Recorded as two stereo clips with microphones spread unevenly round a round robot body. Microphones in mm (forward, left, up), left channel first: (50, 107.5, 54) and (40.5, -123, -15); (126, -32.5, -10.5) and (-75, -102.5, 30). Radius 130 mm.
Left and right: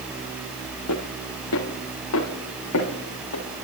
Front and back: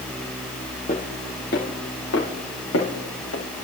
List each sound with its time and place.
0.9 s footsteps: 85° left, 2.5 m; by 3.4 s 65° left, 4.5 m